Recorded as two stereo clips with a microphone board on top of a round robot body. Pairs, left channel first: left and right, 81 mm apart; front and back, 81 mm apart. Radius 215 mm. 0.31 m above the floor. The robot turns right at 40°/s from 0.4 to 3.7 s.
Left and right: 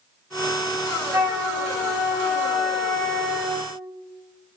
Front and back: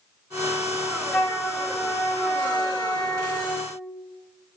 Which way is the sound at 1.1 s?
70° right.